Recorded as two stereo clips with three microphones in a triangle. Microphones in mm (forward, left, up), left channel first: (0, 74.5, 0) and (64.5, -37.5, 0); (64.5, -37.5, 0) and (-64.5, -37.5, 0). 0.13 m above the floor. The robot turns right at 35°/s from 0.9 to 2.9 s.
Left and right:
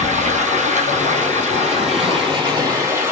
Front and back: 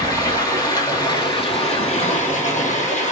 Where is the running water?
60° right, 2 m; by 3.1 s 10° left, 2 m.